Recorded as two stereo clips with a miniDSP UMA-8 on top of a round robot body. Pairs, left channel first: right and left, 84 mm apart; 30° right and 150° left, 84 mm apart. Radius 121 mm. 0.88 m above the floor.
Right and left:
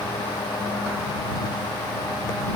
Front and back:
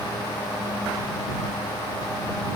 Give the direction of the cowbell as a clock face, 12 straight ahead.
I don't hear a cowbell.